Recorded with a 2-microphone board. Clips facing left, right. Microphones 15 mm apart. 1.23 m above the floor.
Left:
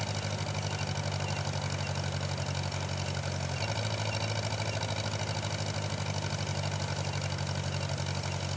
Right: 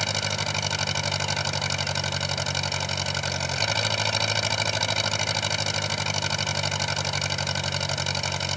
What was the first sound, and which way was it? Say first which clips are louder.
An engine running: right 9 dB; 50° right (ahead or behind).